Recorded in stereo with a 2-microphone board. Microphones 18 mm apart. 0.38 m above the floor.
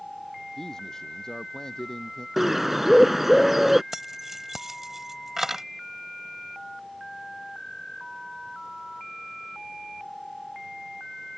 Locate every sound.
0.6 s a man speaking: 25° left (ahead or behind); by 2.3 s 30° left (ahead or behind)
2.4 s a bird: 10° right (ahead or behind)
3.9 s keys jangling: 20° right (ahead or behind)